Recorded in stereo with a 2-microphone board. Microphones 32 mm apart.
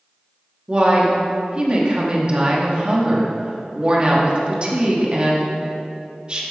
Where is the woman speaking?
35° right (ahead or behind), 1.1 m.